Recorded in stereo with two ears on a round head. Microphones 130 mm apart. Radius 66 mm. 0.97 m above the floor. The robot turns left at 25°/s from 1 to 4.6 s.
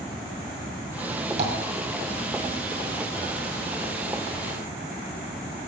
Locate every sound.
1.4 s tapping: 50° right (ahead or behind), 2 m